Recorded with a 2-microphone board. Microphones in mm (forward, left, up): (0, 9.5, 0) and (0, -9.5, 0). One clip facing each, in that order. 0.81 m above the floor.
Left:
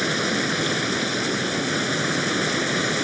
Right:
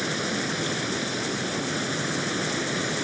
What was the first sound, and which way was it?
Running water, 30° left (ahead or behind).